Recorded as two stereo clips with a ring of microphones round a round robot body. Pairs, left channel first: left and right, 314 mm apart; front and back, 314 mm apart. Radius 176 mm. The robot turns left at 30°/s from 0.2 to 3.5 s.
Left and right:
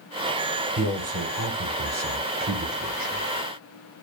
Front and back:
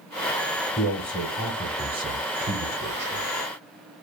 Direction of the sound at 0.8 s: 75° right.